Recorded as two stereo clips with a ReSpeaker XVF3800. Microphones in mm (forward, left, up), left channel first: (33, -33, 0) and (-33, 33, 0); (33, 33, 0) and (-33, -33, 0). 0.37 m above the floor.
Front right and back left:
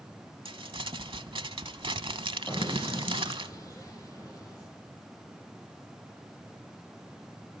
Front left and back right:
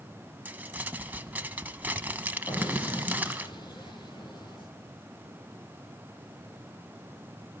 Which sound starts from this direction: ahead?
An explosion, at 2.5 s.